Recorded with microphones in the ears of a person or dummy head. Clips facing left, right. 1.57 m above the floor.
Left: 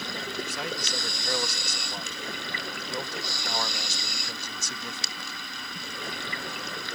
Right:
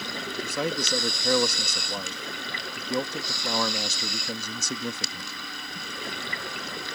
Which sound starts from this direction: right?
A man speaking, at 0.4 s.